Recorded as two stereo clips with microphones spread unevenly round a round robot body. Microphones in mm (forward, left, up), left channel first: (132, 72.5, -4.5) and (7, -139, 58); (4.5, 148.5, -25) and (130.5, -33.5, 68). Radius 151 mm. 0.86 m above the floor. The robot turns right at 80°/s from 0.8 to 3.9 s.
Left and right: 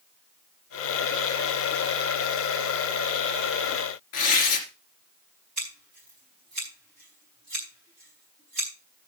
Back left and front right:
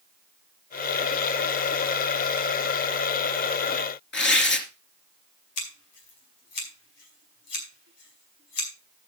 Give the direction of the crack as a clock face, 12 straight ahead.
I don't hear a crack.